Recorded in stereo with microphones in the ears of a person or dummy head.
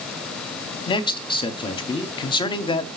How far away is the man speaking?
About 0.9 m.